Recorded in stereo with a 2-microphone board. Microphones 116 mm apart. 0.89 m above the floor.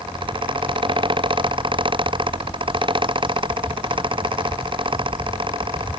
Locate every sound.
Only background noise.